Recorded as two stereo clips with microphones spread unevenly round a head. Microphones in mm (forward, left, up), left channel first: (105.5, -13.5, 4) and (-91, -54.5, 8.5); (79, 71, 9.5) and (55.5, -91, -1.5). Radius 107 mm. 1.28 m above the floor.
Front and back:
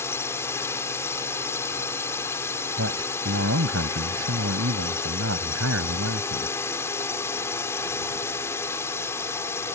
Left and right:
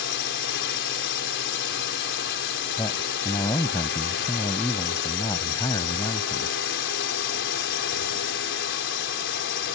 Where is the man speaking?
155° left.